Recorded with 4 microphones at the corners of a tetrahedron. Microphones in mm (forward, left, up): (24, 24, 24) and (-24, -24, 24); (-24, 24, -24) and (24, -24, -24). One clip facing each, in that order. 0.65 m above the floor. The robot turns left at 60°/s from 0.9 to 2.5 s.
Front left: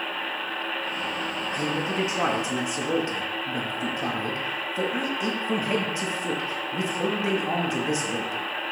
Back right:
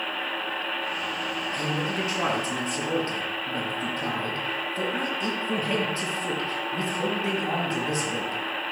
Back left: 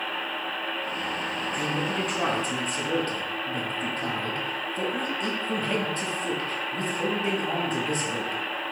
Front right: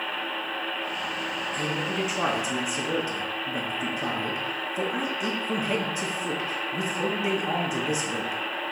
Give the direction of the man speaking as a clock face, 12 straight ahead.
10 o'clock.